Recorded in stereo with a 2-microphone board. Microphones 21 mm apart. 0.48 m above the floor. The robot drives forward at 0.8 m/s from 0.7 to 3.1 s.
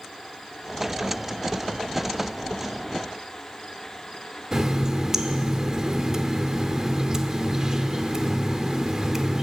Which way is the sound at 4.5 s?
35° right (ahead or behind).